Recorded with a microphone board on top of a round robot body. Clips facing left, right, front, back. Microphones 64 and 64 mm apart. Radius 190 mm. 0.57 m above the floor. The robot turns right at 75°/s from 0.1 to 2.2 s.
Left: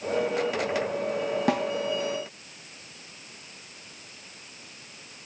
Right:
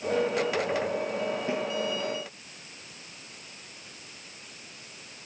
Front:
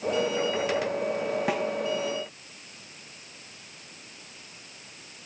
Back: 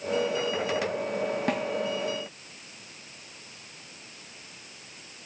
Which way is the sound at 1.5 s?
85° left.